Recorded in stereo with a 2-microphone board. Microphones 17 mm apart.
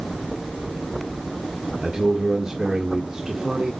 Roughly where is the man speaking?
Right.